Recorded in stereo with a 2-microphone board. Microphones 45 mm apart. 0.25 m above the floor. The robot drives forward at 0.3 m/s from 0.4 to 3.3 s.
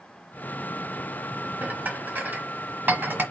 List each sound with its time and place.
1.6 s dishes clattering: 40° right (ahead or behind), 1.3 m; by 3.2 s 45° right (ahead or behind), 1.2 m